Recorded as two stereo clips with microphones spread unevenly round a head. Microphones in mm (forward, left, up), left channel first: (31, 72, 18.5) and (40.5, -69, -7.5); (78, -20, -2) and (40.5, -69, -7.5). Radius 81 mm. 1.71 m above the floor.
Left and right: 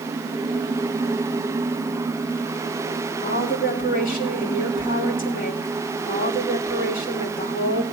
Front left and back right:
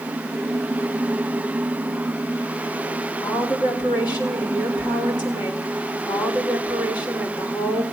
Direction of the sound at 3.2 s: 70° left.